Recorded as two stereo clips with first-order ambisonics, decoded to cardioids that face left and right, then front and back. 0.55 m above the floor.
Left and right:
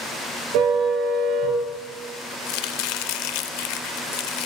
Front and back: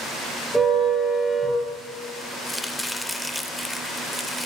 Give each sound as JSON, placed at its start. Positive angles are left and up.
{"t": 0.5, "sound": "a car horn", "azimuth_deg": -95, "distance_m": 5.0}
{"t": 2.5, "sound": "chopping", "azimuth_deg": 85, "distance_m": 0.5}